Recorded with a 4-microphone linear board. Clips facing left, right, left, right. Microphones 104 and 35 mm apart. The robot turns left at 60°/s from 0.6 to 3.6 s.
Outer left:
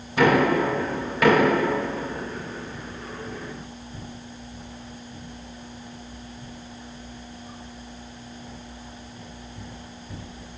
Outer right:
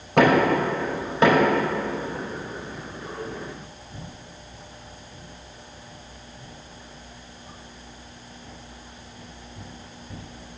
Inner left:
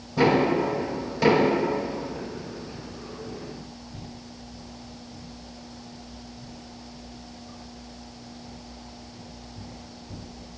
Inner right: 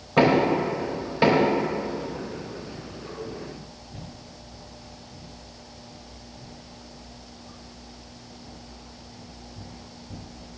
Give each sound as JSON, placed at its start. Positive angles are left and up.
{"t": 0.2, "sound": "knocking", "side_deg": -65, "distance_m": 4.5}